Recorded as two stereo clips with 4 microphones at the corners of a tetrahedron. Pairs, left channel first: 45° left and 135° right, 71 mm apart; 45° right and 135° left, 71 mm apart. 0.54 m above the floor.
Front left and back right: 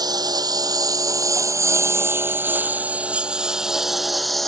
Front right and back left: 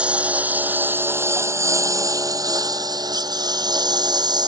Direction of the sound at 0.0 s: 150° right.